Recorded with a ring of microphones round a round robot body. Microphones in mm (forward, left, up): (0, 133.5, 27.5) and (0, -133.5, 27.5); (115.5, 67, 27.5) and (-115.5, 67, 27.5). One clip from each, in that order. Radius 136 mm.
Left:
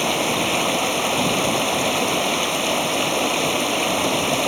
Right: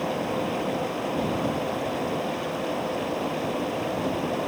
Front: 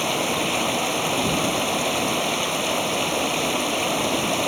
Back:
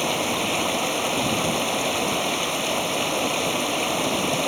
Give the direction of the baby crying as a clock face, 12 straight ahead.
No baby crying in this recording.